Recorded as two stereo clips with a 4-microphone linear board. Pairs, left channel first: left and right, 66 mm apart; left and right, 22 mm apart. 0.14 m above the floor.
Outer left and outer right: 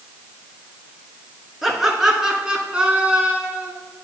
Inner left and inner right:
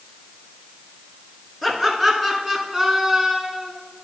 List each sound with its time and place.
1.6 s laughter: 5° right (ahead or behind), 1.9 m; by 3.7 s 20° right (ahead or behind), 1.4 m